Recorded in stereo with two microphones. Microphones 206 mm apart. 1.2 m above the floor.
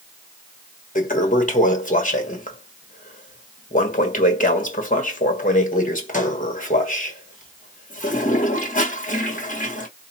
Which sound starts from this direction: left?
A toilet flushing, at 0.9 s.